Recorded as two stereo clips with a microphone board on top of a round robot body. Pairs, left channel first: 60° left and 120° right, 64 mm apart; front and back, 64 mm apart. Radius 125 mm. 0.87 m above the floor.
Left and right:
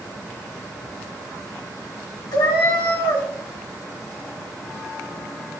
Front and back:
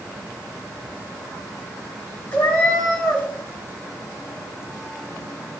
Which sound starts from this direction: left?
A cat meowing, at 2.3 s.